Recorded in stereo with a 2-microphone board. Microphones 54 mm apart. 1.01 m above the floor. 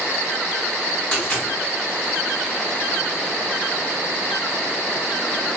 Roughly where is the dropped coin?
Centre.